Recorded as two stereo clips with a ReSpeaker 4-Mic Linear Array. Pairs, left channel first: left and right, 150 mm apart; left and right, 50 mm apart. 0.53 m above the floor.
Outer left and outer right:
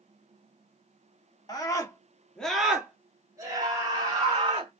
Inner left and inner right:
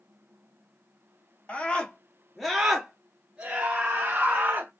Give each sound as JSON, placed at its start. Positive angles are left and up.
{"t": 1.5, "sound": "a scream", "side_deg": 25, "distance_m": 1.5}